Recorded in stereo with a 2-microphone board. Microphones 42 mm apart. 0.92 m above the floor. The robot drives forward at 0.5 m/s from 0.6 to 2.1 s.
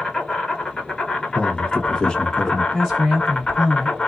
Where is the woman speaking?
15° left (ahead or behind), 1.8 m.